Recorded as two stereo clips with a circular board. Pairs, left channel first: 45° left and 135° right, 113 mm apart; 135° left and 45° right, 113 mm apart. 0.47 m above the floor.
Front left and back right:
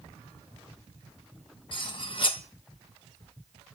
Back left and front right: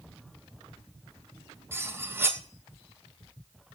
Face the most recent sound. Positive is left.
turn(degrees=20)